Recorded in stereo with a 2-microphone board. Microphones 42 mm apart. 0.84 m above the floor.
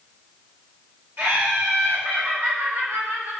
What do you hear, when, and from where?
1.2 s laughter: 50° right (ahead or behind), 1.4 m; by 3.3 s 75° right (ahead or behind), 3.5 m